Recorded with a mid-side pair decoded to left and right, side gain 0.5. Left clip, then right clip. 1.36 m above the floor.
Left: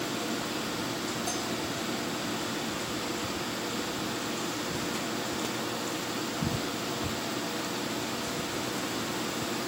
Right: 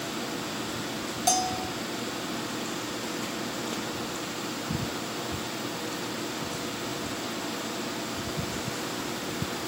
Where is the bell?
65° right.